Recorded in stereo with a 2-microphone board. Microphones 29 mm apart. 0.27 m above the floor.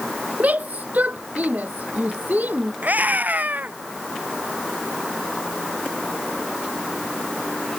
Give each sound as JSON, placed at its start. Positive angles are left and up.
{"t": 0.4, "sound": "a shout", "side_deg": -65}
{"t": 2.8, "sound": "a scream", "side_deg": -70}